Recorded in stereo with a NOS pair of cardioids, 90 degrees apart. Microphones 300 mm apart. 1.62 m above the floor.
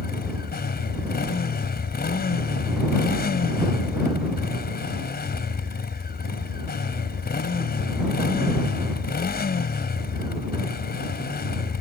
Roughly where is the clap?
I don't hear a clap.